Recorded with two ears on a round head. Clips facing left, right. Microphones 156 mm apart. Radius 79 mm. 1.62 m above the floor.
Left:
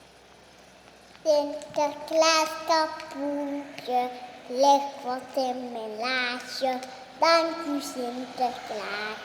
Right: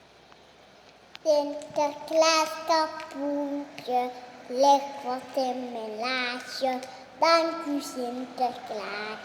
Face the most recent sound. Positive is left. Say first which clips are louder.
# left 1 dB
turn(degrees=0)  # may be behind; listen again after turning